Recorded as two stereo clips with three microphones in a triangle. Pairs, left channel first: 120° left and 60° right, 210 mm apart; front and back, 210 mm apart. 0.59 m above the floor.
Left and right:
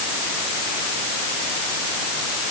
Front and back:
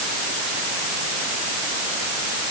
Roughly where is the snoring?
I don't hear snoring.